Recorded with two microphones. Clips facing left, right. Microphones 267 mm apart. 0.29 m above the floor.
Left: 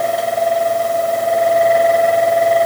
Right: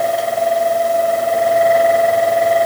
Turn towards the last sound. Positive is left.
No sound to turn to.